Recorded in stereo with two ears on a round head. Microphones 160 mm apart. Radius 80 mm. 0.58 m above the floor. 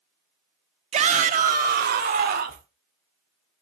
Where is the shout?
35° right (ahead or behind), 1.1 m; by 2.7 s 55° right (ahead or behind), 2 m.